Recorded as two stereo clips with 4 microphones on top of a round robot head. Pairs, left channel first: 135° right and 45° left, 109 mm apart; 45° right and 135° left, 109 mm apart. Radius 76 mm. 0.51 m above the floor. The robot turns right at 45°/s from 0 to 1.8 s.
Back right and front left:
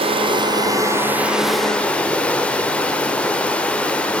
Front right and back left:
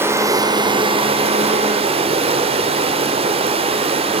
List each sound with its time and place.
0.0 s running water: 65° left, 1.7 m; by 4.2 s 150° left, 1.7 m